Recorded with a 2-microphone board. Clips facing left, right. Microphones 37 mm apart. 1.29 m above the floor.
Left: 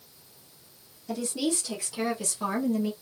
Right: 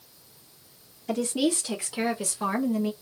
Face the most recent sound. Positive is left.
turn(degrees=-10)  # may be behind; listen again after turning